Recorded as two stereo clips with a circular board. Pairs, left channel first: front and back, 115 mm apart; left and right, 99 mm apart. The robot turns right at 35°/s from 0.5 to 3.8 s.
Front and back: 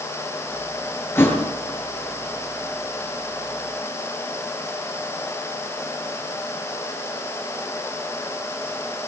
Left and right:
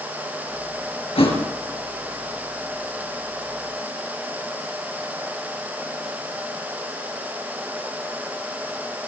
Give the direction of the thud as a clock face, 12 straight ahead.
10 o'clock.